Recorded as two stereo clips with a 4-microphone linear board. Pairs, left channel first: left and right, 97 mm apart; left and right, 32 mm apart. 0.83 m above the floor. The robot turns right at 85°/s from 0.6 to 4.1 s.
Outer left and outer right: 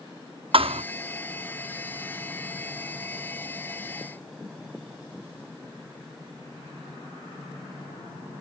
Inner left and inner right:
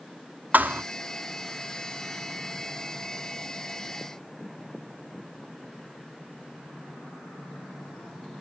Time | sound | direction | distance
0.5 | a thud | 70° right (ahead or behind) | 0.5 m